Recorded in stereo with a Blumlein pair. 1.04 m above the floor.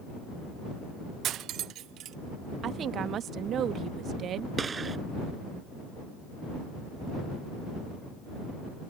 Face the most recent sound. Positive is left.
turn(degrees=-15)